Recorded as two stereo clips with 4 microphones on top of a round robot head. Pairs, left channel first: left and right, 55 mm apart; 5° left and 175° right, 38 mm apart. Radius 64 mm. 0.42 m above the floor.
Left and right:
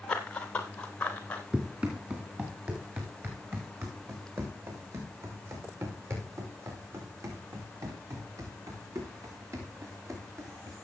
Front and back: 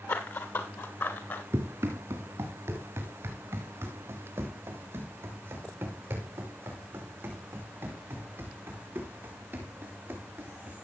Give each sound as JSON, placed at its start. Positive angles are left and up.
{"t": 0.1, "sound": "running footsteps", "azimuth_deg": 20, "distance_m": 2.5}
{"t": 1.5, "sound": "running footsteps", "azimuth_deg": -160, "distance_m": 3.5}